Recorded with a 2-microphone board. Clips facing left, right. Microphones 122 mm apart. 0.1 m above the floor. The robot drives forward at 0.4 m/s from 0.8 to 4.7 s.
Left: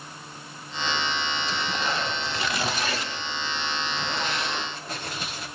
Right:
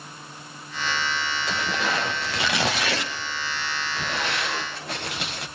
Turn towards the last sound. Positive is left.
turn(degrees=-70)  # may be behind; listen again after turning